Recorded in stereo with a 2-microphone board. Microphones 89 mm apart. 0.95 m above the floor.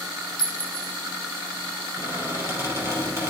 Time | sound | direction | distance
0.4 | a clink | 55° left (ahead or behind) | 1.2 m
2.0 | a squeak | 30° right (ahead or behind) | 3.5 m